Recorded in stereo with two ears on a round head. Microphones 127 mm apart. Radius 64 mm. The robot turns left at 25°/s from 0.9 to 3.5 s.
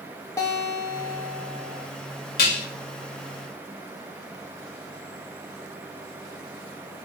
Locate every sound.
0.4 s a guitar: 20° left (ahead or behind), 0.9 m; by 1.9 s 5° left (ahead or behind), 0.9 m
2.4 s dishes clattering: 70° left (ahead or behind), 0.8 m; by 2.7 s 65° left (ahead or behind), 0.8 m